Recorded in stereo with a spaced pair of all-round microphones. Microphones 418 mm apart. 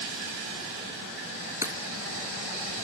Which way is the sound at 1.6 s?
5° right (ahead or behind).